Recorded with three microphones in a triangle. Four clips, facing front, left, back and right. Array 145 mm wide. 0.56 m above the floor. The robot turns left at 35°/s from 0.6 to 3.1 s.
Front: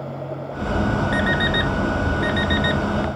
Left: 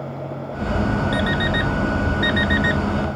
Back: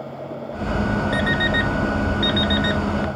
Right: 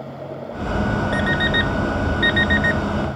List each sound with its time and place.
1.1 s an alarm clock: 90° right, 0.9 m; by 2.8 s 150° right, 0.9 m